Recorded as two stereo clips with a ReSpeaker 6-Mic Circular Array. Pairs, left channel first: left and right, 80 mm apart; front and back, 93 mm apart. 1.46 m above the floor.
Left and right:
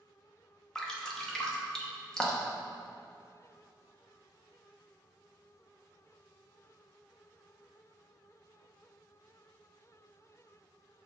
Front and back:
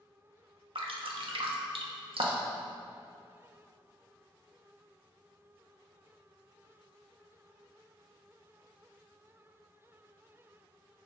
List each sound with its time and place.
0.8 s dripping: 170° left, 0.9 m